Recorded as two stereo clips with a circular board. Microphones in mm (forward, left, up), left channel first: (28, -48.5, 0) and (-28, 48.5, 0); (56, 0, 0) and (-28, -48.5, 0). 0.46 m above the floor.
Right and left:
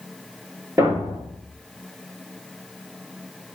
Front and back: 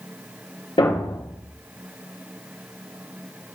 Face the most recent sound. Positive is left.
turn(degrees=60)